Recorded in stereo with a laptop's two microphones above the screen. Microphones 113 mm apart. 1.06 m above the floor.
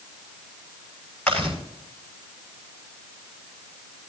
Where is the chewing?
15° left (ahead or behind), 6.5 m.